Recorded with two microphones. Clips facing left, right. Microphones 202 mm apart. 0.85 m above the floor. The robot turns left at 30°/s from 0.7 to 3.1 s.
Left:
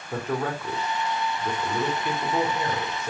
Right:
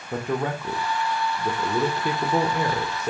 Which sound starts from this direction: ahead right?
A man speaking, at 0.1 s.